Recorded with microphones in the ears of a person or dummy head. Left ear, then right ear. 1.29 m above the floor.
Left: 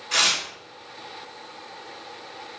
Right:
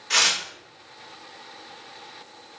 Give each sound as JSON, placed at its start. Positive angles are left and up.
{"t": 0.1, "sound": "tearing paper", "side_deg": -50, "distance_m": 0.7}